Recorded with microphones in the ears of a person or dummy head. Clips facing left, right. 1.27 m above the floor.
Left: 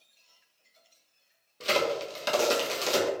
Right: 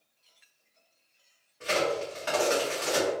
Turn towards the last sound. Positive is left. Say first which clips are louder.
# even
turn(degrees=50)  # may be behind; listen again after turning